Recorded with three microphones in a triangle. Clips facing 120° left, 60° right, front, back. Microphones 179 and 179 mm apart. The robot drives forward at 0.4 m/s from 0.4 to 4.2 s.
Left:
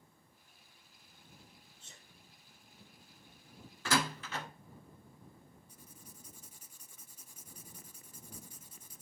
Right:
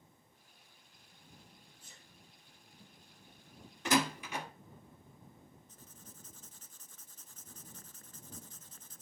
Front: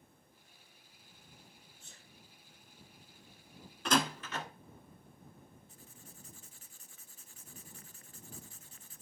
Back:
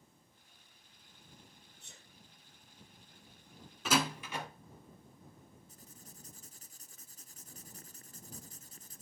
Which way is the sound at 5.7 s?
165° right.